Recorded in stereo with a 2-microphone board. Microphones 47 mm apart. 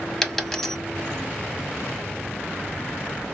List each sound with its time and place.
0.2 s a dropped coin: 5° left (ahead or behind), 1.4 m